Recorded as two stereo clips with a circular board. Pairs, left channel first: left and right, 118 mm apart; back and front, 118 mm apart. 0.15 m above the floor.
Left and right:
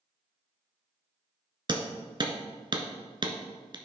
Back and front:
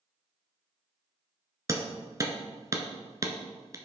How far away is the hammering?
About 1.2 m.